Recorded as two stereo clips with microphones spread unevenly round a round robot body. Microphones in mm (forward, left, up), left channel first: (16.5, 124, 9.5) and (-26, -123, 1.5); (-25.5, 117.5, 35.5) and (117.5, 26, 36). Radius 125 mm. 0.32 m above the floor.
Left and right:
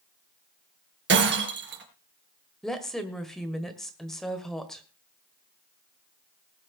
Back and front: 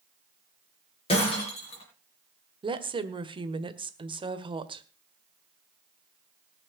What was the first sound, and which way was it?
Breaking glass, 145° right.